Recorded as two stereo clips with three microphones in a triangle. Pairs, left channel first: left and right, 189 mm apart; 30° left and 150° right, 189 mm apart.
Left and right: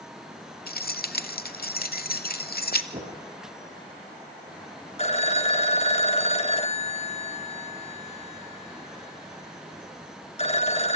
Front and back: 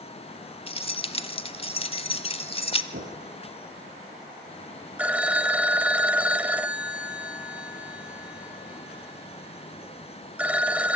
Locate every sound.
0.7 s keys jangling: 80° left, 0.9 m
2.9 s knocking: 145° right, 6.5 m
5.0 s a phone ringing: 130° left, 0.7 m